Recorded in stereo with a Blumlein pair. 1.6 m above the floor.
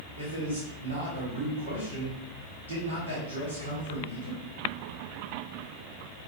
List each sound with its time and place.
0.2 s a man speaking: 70° right, 1.4 m